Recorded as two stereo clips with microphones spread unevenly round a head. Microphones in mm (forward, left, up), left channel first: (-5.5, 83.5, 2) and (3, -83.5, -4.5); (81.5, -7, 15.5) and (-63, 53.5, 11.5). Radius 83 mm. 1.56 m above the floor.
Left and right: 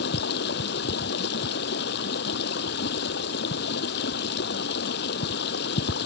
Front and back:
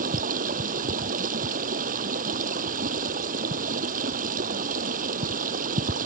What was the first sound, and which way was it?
Running water, 120° left.